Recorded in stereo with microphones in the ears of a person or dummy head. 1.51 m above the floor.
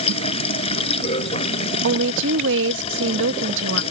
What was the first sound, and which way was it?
Running water, 35° left (ahead or behind).